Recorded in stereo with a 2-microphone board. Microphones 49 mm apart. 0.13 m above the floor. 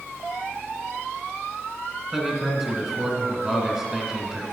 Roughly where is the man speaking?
Centre.